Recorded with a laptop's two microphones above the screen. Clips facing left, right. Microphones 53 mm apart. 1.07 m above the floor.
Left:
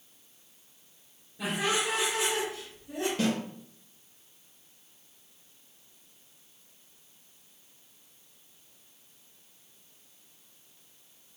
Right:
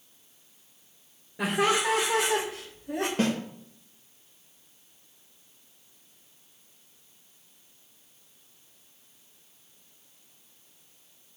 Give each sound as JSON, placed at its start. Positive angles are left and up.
{"t": 1.4, "sound": "laughter", "side_deg": -80, "distance_m": 2.5}
{"t": 3.2, "sound": "a snare drum", "side_deg": -40, "distance_m": 1.9}